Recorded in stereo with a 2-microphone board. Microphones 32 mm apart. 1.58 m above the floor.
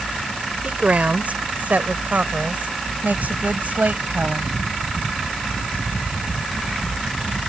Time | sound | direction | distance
0.6 | a woman speaking | 55° right (ahead or behind) | ?